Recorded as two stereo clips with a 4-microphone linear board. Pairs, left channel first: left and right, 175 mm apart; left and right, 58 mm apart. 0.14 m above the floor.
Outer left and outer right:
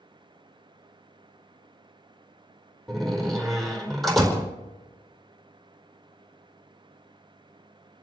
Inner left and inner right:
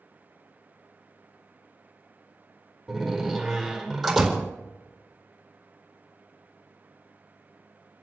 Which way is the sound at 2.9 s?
Centre (ahead or behind).